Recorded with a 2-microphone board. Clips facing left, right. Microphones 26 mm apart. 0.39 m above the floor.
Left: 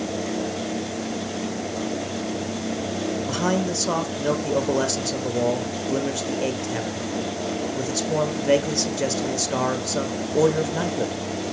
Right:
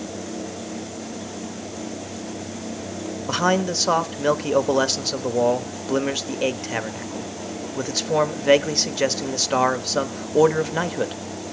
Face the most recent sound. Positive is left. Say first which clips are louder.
# right 5 dB
turn(degrees=-30)  # may be behind; listen again after turning